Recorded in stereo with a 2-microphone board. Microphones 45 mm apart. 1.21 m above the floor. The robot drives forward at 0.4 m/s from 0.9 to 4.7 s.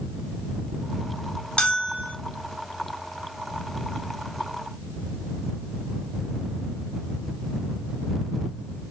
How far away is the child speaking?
I don't hear a child speaking.